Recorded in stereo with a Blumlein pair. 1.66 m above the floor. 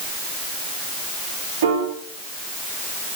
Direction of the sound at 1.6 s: 50° right.